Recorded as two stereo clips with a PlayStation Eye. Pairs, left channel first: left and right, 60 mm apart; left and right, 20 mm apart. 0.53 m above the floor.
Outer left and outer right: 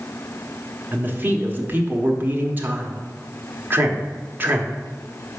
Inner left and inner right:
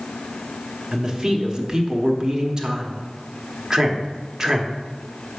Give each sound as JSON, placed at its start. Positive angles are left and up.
{"t": 0.9, "sound": "a man speaking", "side_deg": -30, "distance_m": 1.2}